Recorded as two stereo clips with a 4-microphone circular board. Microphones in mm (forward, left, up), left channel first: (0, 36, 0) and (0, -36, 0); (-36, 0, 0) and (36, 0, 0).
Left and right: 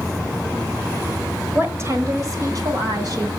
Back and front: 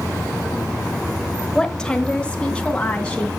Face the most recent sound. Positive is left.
turn(degrees=-105)